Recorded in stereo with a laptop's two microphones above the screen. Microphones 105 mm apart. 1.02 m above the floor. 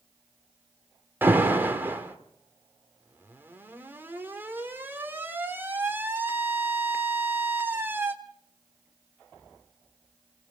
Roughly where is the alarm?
Centre.